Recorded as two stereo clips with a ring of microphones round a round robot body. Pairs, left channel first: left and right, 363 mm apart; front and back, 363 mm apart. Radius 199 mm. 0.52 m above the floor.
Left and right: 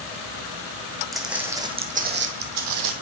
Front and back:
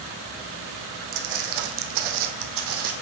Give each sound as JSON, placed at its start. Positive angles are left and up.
{"t": 1.1, "sound": "footsteps", "azimuth_deg": 180, "distance_m": 1.8}